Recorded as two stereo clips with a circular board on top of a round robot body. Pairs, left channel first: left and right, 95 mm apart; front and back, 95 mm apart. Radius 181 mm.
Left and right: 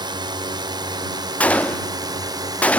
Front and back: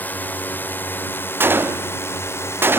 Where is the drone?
70° right; by 2.8 s 55° right.